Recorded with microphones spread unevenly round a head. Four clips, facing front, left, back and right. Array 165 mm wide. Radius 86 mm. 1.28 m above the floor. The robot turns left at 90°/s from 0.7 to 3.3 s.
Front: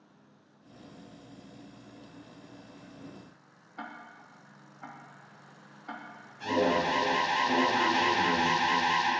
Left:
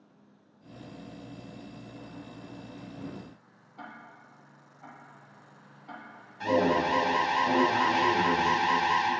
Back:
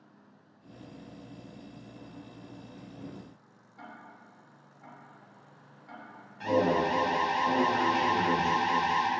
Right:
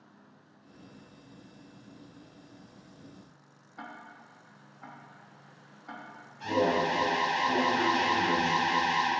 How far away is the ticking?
About 0.8 m.